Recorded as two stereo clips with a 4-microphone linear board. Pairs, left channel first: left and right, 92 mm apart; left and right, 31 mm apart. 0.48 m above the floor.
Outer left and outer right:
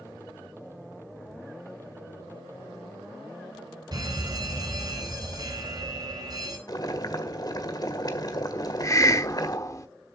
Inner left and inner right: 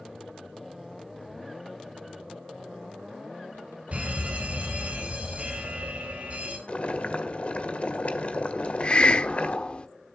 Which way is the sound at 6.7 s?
45° left (ahead or behind).